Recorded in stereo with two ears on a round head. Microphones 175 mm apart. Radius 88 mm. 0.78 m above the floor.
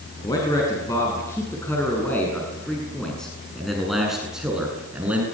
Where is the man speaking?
20° left (ahead or behind), 7 m; by 5.2 s 10° right (ahead or behind), 7.5 m.